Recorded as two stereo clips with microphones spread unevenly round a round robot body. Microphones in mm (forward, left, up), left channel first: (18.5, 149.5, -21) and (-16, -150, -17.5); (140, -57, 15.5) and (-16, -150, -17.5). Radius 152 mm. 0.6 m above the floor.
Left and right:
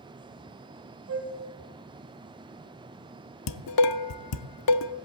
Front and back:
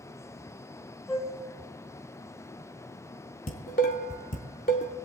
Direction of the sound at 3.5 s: 95° left.